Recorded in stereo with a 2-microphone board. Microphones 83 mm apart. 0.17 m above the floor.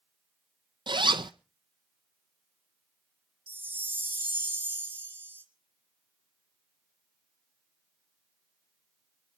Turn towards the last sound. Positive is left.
turn(degrees=-25)  # may be behind; listen again after turning